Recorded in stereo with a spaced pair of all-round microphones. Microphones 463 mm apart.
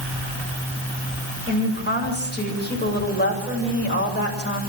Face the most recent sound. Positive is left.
turn(degrees=20)  # may be behind; listen again after turning